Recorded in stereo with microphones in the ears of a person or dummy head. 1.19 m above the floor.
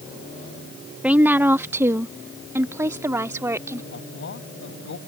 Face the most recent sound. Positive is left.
turn(degrees=80)